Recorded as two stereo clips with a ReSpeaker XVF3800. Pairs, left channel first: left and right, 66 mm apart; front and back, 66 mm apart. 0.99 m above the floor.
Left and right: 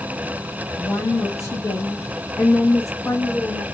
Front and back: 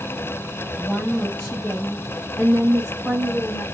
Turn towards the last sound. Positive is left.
turn(degrees=110)